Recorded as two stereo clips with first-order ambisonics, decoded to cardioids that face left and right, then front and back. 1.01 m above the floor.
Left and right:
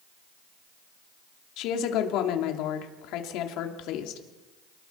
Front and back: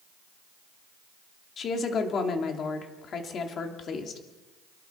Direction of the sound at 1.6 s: 60° left.